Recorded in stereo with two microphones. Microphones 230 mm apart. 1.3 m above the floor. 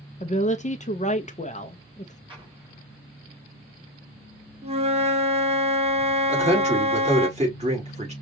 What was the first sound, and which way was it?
A woman speaking, 30° left (ahead or behind).